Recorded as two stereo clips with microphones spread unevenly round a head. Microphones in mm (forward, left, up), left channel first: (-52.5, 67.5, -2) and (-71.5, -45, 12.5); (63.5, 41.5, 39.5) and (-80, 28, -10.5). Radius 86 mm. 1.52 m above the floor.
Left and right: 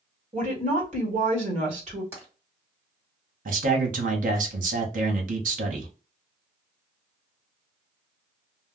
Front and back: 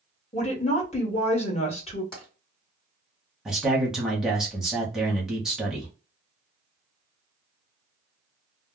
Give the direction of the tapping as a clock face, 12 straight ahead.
2 o'clock.